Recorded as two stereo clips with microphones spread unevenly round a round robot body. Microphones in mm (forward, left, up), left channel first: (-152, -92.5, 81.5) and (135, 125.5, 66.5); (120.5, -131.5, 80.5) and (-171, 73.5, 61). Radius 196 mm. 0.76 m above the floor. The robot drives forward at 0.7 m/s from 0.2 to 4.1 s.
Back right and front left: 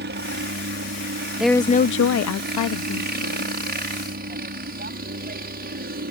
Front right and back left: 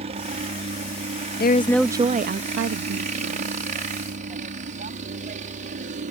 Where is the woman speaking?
40° right; by 3.5 s 175° right.